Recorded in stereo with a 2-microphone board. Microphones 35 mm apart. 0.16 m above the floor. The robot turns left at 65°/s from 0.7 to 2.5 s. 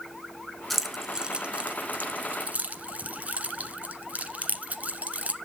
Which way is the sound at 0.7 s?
5° left (ahead or behind).